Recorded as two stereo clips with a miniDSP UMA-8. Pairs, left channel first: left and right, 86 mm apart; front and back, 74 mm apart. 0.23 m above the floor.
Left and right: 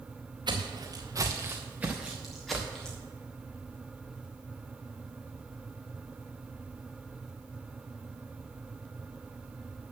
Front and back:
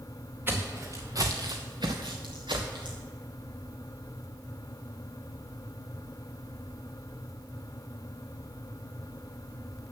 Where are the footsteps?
120° right, 1.7 m; by 3.0 s 170° left, 2.5 m.